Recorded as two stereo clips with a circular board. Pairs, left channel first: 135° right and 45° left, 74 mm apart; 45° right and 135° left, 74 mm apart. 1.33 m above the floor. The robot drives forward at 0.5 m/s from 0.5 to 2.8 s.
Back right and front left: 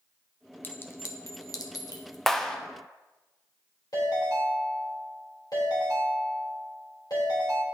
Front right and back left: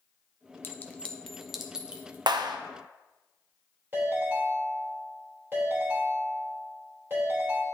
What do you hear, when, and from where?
0.6 s a clink: 85° right, 0.5 m; by 2.2 s 155° right, 0.9 m
2.3 s a clap: 140° left, 0.6 m; by 2.6 s 145° left, 0.7 m
3.9 s a ringtone: 165° right, 3.5 m